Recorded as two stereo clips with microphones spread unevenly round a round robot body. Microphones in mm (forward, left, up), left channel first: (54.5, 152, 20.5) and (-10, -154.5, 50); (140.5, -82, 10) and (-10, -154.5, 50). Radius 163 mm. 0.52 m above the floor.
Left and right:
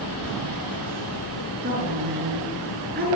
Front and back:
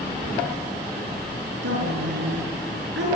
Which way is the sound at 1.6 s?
165° right.